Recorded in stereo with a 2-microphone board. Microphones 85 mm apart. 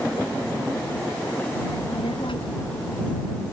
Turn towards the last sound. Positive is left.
turn(degrees=80)